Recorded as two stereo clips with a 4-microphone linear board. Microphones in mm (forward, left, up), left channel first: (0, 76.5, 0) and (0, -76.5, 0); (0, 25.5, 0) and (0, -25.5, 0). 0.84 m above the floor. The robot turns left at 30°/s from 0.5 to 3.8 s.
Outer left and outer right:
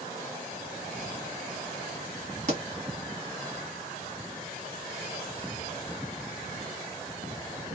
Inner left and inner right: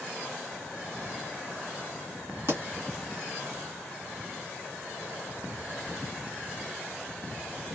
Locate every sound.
2.5 s a pop: 50° right (ahead or behind), 1.8 m